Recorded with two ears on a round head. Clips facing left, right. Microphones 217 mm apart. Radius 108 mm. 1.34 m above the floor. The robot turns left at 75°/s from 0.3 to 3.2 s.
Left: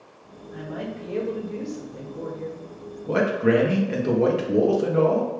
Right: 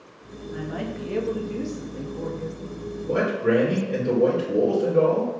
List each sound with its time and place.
0.5 s a woman speaking: 55° right, 1.0 m; by 2.6 s 150° left, 1.0 m
3.1 s a man speaking: 60° left (ahead or behind), 1.2 m; by 5.3 s 70° left (ahead or behind), 1.2 m